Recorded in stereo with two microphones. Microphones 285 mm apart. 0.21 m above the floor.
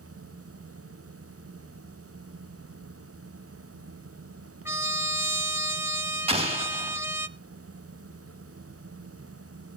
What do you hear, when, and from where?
4.7 s a trumpet: 10° right (ahead or behind), 0.6 m
6.3 s an explosion: 20° right (ahead or behind), 1.5 m